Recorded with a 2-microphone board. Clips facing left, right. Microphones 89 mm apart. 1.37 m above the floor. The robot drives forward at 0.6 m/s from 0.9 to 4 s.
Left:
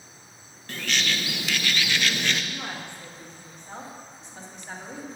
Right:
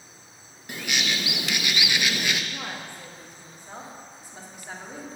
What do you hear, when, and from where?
0.7 s a bird: 15° right (ahead or behind), 0.6 m; by 2.4 s 10° right (ahead or behind), 0.8 m
2.5 s a woman speaking: 15° right (ahead or behind), 1.7 m; by 5.1 s 10° right (ahead or behind), 2.5 m